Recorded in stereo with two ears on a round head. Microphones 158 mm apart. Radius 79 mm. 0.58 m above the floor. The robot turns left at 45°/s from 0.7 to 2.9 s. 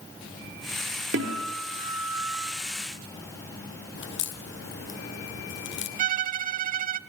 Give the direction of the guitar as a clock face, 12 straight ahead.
2 o'clock.